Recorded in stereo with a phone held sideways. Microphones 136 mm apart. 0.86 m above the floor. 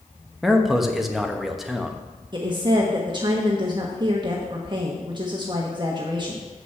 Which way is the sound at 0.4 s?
Centre (ahead or behind).